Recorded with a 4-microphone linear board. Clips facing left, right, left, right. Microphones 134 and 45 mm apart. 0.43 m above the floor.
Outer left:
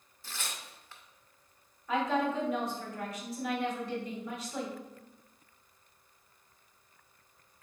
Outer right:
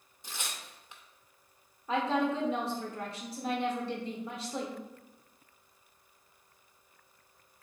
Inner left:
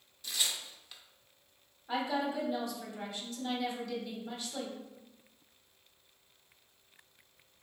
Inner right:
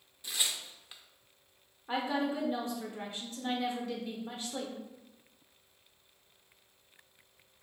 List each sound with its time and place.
0.2 s tearing paper: 20° right (ahead or behind), 0.5 m
1.9 s a woman speaking: 30° right (ahead or behind), 0.9 m